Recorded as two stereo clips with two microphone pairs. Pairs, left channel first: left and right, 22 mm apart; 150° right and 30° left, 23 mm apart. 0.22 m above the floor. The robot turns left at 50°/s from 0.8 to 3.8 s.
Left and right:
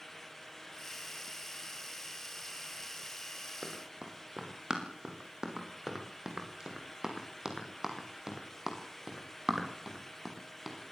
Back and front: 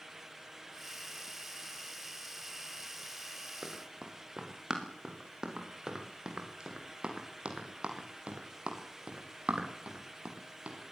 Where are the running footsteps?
30° right, 7.5 m; by 10.8 s 10° right, 6.5 m.